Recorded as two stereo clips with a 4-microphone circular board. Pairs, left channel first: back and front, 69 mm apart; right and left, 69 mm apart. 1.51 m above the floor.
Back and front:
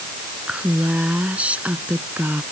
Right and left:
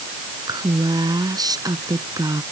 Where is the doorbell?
No doorbell in this recording.